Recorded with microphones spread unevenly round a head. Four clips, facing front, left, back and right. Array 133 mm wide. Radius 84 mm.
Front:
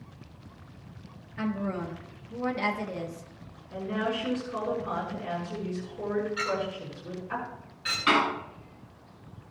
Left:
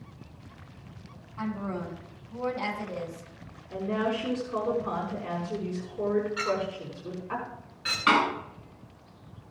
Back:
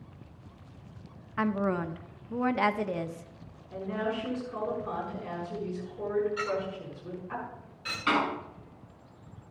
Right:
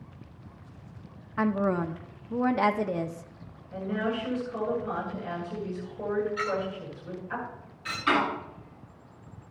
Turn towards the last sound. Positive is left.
turn(degrees=120)